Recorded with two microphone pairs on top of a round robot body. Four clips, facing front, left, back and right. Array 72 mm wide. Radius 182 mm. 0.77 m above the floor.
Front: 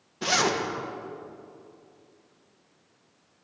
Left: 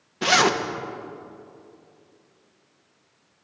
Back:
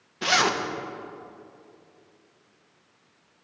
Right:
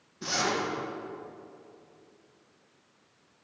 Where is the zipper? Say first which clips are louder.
Left 10 dB, back 2 dB; 100° left, 1.3 m.